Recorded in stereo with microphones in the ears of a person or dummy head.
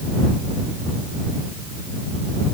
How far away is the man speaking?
No man speaking in this recording.